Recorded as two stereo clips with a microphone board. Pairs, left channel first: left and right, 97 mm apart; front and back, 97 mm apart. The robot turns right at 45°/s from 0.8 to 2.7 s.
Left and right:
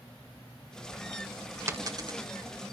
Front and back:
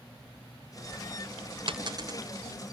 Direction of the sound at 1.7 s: 150° right.